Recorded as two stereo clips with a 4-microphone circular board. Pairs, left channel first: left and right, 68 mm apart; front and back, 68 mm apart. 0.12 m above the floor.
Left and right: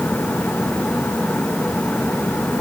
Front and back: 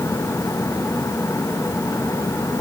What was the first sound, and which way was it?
Only background noise.